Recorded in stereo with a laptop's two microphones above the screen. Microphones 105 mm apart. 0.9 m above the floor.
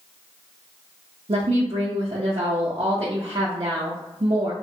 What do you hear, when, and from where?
1.3 s a woman speaking: 70° right (ahead or behind), 0.6 m